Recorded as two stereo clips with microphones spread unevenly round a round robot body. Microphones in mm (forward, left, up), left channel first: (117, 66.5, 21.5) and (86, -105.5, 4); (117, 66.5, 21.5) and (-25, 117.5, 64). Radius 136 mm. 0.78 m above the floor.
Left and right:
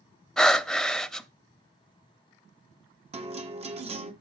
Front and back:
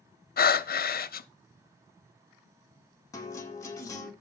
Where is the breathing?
10° right, 0.9 m.